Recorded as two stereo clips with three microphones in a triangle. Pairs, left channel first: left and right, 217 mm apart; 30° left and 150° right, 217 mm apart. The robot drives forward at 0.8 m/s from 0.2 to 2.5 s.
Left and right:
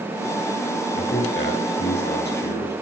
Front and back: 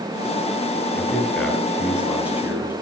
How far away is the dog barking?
I don't hear a dog barking.